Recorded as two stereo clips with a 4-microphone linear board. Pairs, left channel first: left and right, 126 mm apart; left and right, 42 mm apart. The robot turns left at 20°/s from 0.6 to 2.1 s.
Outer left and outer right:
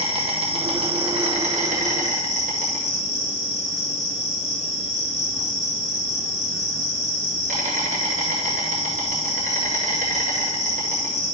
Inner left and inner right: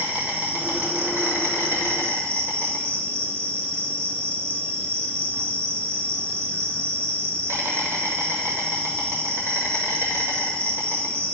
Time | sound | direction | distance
0.0 | an insect | 45° right | 2.5 m